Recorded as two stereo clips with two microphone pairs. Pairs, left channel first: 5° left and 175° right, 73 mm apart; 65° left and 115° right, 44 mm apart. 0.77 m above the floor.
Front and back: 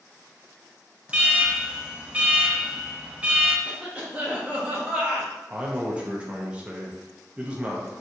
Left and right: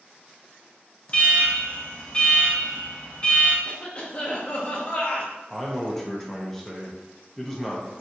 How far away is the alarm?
About 0.7 m.